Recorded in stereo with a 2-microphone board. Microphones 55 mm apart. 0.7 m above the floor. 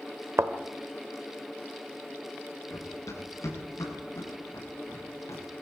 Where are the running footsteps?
75° left (ahead or behind), 7.5 m; by 5.4 s 70° left (ahead or behind), 9 m.